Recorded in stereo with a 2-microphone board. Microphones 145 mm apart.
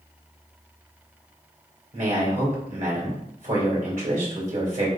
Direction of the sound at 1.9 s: 65° right (ahead or behind).